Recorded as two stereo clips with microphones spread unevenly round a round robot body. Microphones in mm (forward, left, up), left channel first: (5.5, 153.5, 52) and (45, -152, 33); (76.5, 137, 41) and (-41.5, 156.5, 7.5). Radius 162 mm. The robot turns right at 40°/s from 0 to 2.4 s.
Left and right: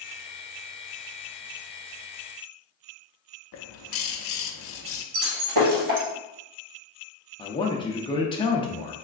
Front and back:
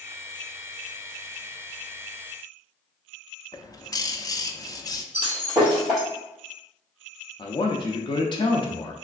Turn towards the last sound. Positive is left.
turn(degrees=30)